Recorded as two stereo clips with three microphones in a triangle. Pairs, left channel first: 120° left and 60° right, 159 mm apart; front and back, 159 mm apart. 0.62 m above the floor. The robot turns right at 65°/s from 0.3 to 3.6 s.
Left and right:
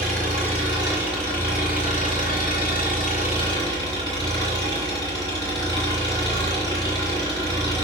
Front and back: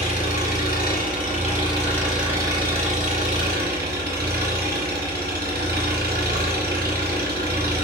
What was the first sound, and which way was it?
An engine running, 30° right.